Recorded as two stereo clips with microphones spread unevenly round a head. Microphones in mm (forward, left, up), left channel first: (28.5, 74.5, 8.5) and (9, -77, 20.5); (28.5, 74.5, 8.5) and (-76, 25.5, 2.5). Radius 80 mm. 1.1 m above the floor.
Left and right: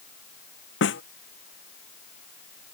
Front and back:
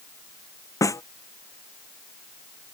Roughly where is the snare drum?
Left.